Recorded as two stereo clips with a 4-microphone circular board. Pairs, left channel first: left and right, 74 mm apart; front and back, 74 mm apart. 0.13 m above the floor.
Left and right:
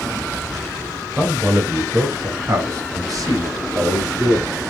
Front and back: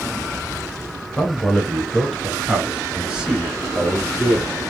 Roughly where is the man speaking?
Ahead right.